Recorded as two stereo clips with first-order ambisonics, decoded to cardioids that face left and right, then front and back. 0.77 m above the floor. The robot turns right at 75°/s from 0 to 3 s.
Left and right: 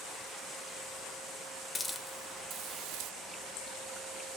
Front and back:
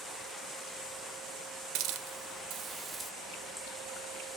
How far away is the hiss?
About 0.7 m.